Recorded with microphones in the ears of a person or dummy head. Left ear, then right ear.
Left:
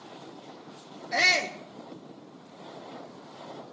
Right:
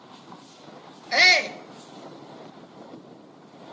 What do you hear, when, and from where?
1.1 s a shout: 30° right (ahead or behind), 0.9 m